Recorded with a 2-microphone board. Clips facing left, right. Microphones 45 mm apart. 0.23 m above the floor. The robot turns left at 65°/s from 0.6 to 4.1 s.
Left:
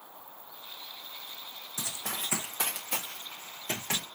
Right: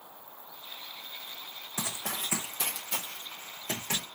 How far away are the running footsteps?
About 0.8 m.